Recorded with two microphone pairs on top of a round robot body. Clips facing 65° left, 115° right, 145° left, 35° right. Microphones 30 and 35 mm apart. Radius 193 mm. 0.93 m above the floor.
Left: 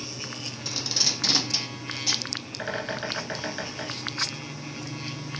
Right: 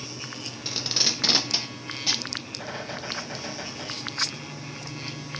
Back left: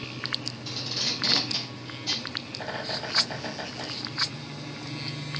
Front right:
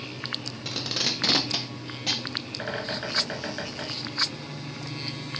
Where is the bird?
5° left, 1.4 m.